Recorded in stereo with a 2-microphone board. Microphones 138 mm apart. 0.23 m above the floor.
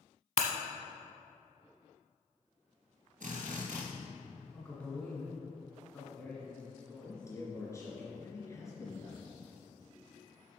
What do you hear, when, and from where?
0.4 s breaking glass: 55° left (ahead or behind), 0.9 m
3.2 s a drill: 70° right (ahead or behind), 3 m
4.5 s a man speaking: 10° left (ahead or behind), 2.5 m
7.0 s a man speaking: 20° left (ahead or behind), 3 m